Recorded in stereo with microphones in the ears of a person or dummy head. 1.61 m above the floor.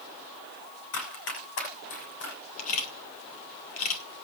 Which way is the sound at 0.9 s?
75° left (ahead or behind).